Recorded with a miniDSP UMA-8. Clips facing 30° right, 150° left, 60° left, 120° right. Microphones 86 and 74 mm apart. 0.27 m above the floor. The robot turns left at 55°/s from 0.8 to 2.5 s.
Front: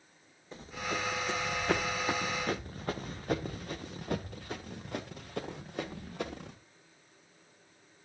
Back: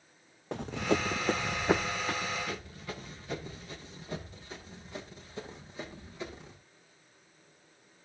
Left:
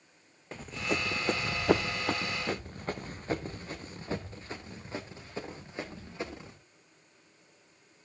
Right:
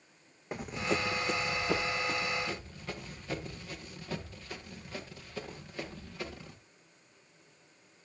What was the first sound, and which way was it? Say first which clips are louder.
Running footsteps: back 7 dB, right 1 dB; 165° left.